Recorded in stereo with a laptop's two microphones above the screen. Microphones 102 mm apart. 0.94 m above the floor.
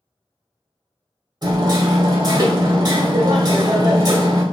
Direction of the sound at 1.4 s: 40° right (ahead or behind).